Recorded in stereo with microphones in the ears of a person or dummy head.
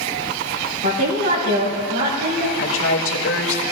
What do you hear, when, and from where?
0.8 s a woman speaking: 60° right (ahead or behind), 6 m; by 2.5 s 45° right (ahead or behind), 4.5 m
2.6 s a woman speaking: 85° left, 2.5 m